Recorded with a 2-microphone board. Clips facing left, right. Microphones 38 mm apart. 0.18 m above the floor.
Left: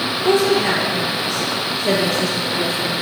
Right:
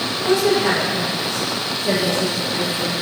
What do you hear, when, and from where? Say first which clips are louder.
0.2 s a woman speaking: left 1 dB; 40° left (ahead or behind), 4 m; by 2.9 s 70° left (ahead or behind), 4.5 m